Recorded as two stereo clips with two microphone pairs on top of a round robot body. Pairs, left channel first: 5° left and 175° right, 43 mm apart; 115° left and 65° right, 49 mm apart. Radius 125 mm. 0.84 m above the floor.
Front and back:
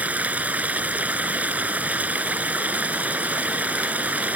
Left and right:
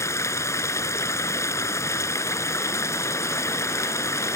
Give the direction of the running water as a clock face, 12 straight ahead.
8 o'clock.